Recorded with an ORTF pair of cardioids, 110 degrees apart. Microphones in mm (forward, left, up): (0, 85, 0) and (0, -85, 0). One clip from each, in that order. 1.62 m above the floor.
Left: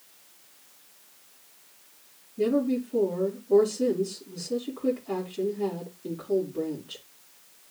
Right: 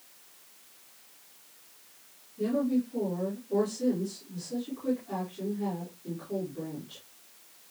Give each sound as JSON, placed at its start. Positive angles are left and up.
{"t": 2.4, "sound": "a woman speaking", "azimuth_deg": 60, "distance_m": 5.0}